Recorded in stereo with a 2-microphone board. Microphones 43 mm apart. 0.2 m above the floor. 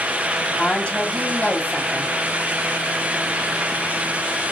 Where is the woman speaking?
20° left (ahead or behind), 1.1 m.